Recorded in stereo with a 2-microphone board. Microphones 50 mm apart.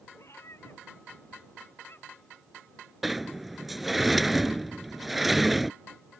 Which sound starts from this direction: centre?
A sliding door, at 3.0 s.